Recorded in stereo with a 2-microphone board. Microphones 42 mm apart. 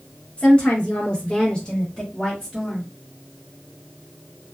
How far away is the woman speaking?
About 1.2 m.